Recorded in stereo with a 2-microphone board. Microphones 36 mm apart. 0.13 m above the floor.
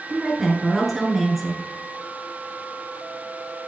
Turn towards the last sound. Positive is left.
turn(degrees=0)  # may be behind; listen again after turning